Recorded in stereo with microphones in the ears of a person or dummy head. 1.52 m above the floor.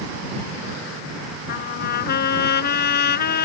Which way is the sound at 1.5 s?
55° left (ahead or behind).